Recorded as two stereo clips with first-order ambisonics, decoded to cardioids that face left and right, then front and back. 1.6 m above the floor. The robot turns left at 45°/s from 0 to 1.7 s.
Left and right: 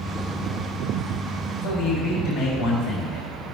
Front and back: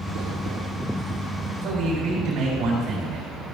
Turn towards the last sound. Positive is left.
turn(degrees=125)